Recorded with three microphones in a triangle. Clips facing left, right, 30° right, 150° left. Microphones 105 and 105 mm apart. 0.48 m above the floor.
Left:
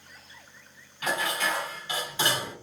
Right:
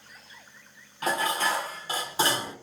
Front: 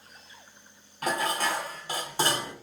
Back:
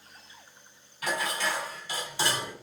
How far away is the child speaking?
I don't hear a child speaking.